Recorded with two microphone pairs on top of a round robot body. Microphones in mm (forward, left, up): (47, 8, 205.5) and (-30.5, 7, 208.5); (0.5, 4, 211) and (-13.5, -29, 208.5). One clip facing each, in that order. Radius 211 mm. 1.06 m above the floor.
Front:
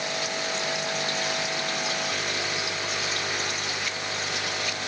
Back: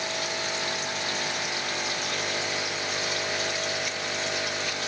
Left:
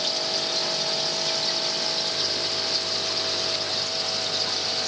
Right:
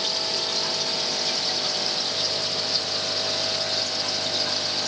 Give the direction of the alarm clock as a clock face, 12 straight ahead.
I don't hear an alarm clock.